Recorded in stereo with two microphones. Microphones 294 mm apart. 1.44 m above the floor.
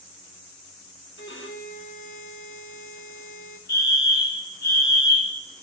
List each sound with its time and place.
1.2 s a violin: 45° left (ahead or behind), 1.3 m
3.7 s a fire alarm: 70° left (ahead or behind), 2.5 m